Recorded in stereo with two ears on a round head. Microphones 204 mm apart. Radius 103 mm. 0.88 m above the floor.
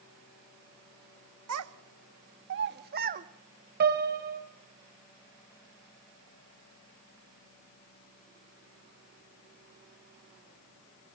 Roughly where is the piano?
Right.